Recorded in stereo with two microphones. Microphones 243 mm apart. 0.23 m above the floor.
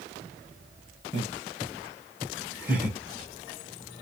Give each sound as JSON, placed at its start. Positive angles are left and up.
{"t": 1.1, "sound": "laughter", "side_deg": -25, "distance_m": 1.2}